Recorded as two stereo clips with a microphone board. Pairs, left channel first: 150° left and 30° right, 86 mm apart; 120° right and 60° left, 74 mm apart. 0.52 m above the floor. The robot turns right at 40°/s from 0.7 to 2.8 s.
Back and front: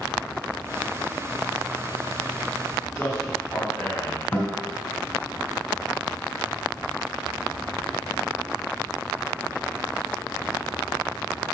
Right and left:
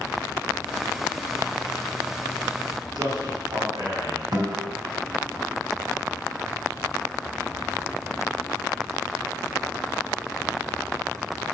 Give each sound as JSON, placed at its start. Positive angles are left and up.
{"t": 3.0, "sound": "a man speaking", "azimuth_deg": 70, "distance_m": 3.5}
{"t": 4.3, "sound": "a guitar", "azimuth_deg": 80, "distance_m": 4.0}